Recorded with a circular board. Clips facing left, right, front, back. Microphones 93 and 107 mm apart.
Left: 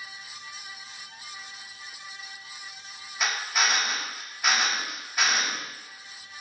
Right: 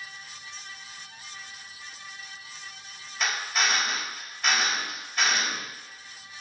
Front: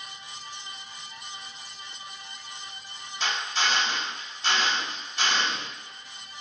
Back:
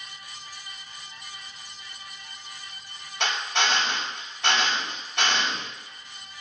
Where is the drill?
175° left, 3.5 m.